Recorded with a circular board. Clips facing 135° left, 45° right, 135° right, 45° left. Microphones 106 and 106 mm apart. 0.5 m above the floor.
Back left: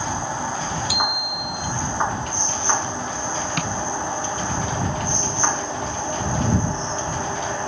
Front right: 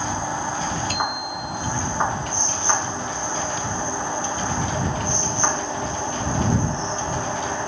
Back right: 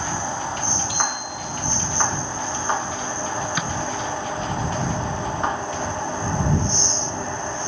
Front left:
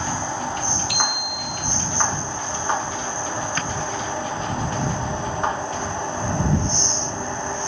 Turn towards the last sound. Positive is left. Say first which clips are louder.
# back left 2 dB, even
turn(degrees=145)